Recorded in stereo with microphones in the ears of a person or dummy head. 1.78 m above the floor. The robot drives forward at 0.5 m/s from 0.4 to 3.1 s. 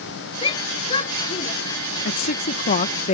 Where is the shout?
30° left (ahead or behind); by 1.5 s 35° left (ahead or behind).